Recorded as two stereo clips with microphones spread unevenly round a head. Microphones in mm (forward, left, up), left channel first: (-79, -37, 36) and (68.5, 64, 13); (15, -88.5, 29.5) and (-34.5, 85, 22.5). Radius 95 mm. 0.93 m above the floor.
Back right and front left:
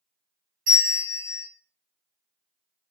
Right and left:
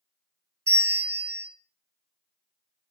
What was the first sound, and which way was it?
A bell, 35° left.